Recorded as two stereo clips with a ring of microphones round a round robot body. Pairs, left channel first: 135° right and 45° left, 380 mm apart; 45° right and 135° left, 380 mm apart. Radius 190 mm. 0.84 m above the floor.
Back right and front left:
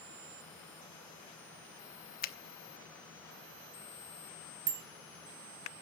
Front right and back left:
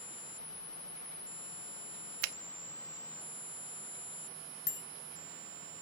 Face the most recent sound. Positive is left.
turn(degrees=20)